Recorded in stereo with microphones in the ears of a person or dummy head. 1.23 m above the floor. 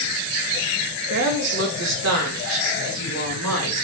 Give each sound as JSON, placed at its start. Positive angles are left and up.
{"t": 1.1, "sound": "a woman speaking", "side_deg": -55, "distance_m": 1.1}